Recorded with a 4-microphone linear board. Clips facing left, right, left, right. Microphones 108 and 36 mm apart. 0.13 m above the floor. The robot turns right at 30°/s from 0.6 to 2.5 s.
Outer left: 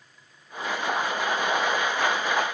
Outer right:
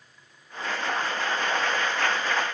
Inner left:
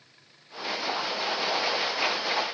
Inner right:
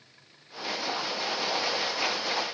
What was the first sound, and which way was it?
Only background noise.